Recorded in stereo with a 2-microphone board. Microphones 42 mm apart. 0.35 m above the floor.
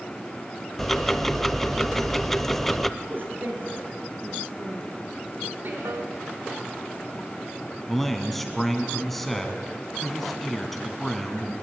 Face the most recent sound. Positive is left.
turn(degrees=5)  # may be behind; listen again after turning